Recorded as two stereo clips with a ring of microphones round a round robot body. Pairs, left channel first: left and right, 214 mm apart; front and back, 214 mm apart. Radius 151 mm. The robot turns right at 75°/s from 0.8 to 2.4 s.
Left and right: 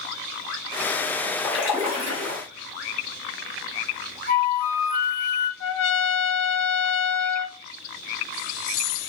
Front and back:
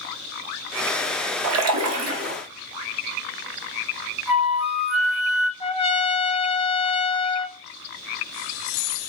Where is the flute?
95° left, 0.8 m.